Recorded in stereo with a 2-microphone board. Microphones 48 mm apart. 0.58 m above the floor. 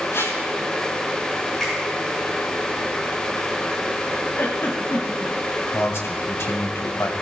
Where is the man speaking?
70° left (ahead or behind), 2.5 m.